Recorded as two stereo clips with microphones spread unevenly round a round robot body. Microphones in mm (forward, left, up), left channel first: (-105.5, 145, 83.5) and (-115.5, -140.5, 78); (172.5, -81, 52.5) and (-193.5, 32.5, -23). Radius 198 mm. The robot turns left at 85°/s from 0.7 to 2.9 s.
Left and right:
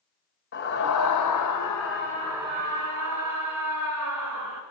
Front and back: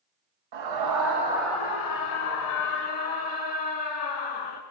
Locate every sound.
0.5 s a scream: 135° left, 3.5 m; by 4.6 s 50° right, 3.5 m